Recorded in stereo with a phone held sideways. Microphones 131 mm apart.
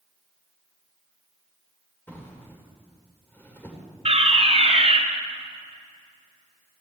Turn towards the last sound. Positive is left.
turn(degrees=-50)  # may be behind; listen again after turning